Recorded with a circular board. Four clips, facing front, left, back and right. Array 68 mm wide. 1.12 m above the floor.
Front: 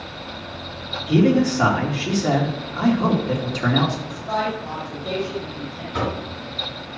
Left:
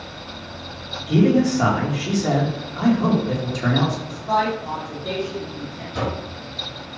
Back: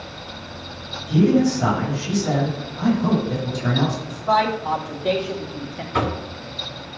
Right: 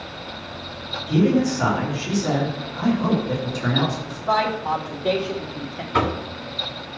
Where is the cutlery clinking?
I don't hear cutlery clinking.